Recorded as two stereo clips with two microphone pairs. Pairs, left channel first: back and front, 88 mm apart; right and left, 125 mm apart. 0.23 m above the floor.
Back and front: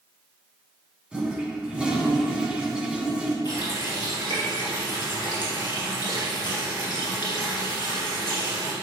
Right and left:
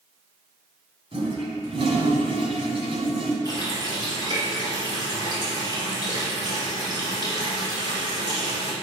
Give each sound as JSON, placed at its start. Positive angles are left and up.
{"t": 1.1, "sound": "a toilet flushing", "azimuth_deg": 75, "distance_m": 1.4}
{"t": 3.5, "sound": "a running tap", "azimuth_deg": 145, "distance_m": 3.0}